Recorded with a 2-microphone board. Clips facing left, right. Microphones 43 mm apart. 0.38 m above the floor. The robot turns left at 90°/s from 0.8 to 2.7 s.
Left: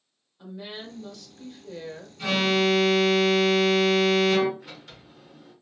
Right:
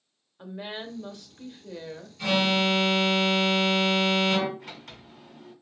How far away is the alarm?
About 2.5 m.